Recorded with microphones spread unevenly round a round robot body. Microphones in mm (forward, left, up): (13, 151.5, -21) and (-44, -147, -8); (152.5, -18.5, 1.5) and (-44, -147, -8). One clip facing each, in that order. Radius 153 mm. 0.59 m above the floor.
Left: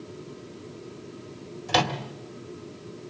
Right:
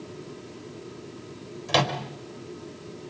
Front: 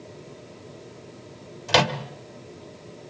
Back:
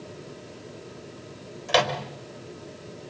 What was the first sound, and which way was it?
A microwave, 10° right.